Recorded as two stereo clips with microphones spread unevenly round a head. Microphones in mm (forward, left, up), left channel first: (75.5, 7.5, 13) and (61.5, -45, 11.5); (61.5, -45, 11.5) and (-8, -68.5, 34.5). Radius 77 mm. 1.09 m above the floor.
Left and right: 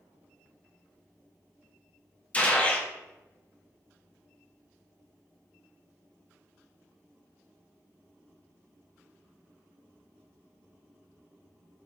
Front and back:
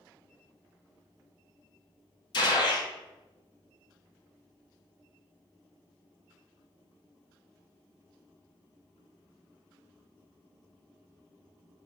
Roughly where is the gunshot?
Ahead left.